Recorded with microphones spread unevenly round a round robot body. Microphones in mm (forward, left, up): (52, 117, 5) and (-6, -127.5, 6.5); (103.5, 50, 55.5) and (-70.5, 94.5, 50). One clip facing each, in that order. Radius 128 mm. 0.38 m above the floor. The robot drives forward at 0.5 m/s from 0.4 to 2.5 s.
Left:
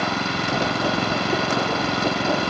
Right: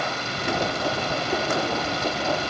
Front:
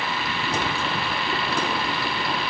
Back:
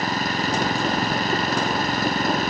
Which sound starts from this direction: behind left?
An engine running, at 0.0 s.